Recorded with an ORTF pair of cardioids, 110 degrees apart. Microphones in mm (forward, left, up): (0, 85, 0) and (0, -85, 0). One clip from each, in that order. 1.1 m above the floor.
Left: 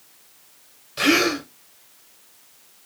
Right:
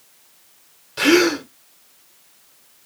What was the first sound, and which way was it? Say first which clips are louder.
A gasp: right 3 dB; 15° right.